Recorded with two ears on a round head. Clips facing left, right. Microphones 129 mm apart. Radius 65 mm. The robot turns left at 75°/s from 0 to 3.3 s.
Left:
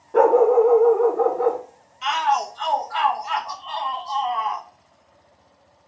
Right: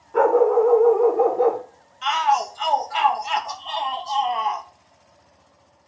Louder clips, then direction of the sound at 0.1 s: Left 2 dB; 55° left.